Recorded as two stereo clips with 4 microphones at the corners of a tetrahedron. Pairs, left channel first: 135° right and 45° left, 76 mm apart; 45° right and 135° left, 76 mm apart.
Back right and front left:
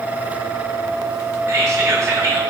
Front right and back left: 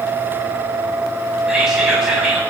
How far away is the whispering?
About 2 m.